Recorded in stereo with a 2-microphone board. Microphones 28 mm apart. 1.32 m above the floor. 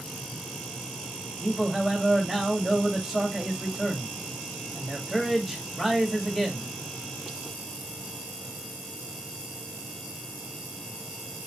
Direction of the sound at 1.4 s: 20° right (ahead or behind).